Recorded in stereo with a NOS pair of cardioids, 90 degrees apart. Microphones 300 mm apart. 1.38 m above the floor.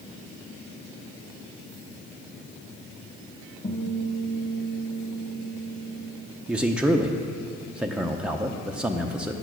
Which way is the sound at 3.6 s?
35° left.